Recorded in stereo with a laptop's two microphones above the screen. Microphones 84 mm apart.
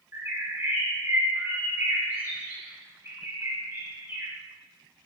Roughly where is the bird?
Right.